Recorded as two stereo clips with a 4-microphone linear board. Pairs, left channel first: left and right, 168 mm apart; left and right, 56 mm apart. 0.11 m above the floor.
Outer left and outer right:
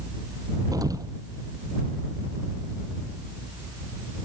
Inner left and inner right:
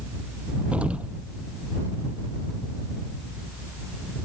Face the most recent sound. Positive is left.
turn(degrees=-20)  # may be behind; listen again after turning